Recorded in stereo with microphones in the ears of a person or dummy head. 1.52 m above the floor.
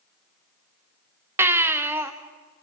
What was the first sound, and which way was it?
A baby crying, 15° right (ahead or behind).